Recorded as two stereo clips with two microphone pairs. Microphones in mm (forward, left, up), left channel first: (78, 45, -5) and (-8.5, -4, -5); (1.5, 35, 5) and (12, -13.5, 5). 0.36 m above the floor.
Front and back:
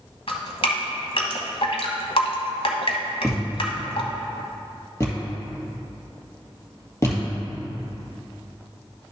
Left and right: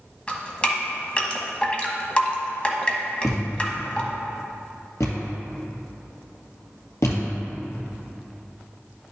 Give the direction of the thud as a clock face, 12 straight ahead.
9 o'clock.